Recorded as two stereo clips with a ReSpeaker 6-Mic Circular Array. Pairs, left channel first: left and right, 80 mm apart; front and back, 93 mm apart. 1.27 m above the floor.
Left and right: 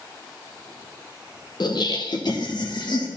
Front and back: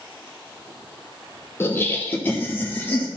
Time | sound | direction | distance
1.6 | laughter | 65° left | 1.1 m